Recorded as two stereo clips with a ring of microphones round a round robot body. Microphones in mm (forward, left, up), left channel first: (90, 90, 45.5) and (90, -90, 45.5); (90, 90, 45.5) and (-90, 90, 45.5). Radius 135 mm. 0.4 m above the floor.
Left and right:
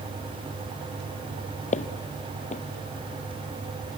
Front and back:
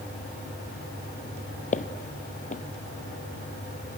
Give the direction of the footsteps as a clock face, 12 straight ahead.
11 o'clock.